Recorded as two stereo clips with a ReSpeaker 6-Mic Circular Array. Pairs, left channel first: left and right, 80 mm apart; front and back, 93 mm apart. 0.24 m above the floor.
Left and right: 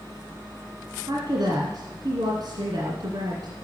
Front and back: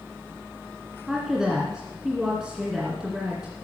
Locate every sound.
1.1 s a woman speaking: 95° right, 2 m